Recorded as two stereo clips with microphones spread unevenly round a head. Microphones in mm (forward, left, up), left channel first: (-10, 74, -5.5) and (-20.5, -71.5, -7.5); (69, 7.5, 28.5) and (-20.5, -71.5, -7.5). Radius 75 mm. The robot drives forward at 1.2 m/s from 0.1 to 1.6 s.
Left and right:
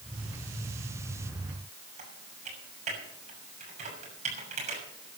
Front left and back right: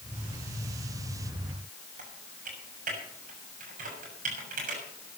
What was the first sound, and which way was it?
Typing on a keyboard, 135° right.